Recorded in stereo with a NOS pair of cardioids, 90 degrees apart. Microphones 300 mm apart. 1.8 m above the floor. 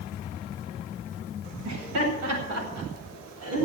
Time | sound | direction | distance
1.6 | laughter | 60° right | 8.5 m